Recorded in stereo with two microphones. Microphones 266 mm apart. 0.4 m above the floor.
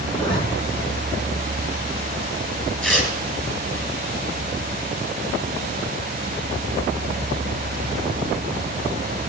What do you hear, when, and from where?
0.1 s a zipper: 15° left (ahead or behind), 3.5 m
2.8 s tearing paper: 5° left (ahead or behind), 4 m